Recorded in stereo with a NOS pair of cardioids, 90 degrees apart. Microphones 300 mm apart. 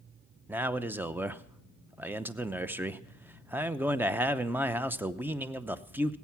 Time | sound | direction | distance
0.5 | a man speaking | 5° right | 0.7 m